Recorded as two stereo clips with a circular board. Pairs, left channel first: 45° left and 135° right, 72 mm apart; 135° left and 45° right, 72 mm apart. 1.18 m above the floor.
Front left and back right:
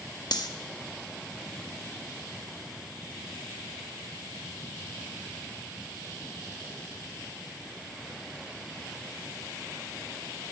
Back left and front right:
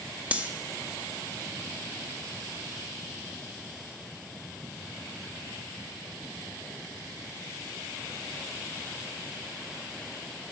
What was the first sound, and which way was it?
Cutlery clinking, 25° left.